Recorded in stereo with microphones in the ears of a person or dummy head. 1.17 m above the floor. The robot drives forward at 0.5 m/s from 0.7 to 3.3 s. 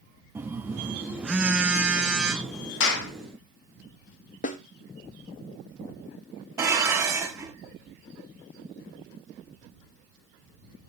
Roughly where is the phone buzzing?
Centre.